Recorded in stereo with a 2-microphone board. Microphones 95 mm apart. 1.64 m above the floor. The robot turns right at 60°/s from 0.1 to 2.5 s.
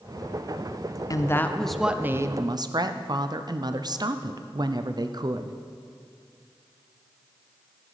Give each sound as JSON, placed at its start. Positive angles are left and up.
{"t": 1.1, "sound": "a woman speaking", "azimuth_deg": 140, "distance_m": 0.5}